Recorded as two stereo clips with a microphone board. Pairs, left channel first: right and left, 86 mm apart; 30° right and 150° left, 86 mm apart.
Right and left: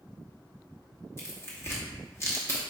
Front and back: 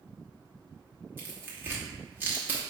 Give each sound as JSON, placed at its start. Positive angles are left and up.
{"t": 1.2, "sound": "tearing paper", "azimuth_deg": -145, "distance_m": 0.9}